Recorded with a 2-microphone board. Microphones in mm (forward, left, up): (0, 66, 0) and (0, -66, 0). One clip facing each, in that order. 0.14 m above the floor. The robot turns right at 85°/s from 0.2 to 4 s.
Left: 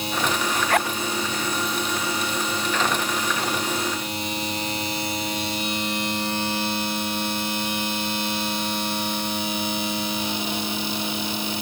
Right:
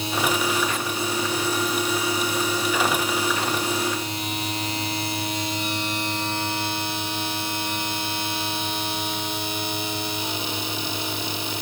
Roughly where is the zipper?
Left.